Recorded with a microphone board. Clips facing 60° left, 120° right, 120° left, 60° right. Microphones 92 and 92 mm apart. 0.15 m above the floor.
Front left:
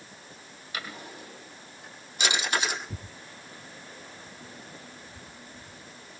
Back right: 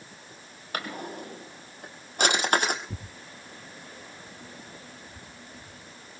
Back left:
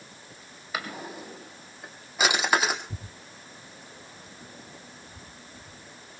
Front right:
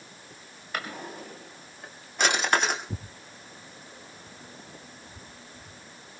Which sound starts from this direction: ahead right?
Tearing paper, at 2.9 s.